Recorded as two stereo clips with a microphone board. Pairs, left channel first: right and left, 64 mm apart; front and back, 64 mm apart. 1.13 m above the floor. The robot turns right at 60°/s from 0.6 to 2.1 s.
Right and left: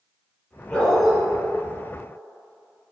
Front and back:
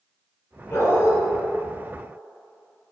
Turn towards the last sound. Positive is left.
turn(degrees=70)